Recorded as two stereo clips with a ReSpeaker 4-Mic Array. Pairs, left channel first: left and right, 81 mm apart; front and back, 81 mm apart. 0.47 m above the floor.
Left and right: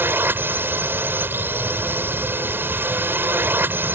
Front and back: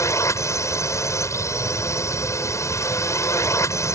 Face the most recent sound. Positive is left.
turn(degrees=-35)